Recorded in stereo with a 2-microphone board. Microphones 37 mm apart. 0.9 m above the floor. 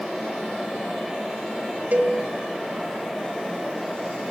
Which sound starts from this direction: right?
A cowbell, at 1.9 s.